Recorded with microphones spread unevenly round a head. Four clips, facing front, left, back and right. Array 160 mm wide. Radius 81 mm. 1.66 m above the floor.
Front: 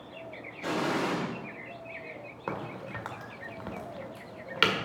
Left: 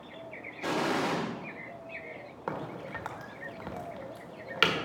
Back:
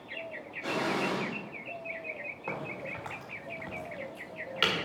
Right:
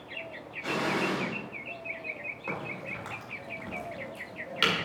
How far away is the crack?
About 1.6 m.